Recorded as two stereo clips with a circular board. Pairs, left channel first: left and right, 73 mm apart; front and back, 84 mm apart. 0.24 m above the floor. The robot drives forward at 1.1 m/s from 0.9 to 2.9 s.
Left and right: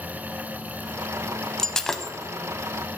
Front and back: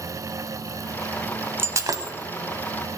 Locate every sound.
1.6 s breaking glass: 165° left, 0.7 m; by 2.1 s 175° left, 1.1 m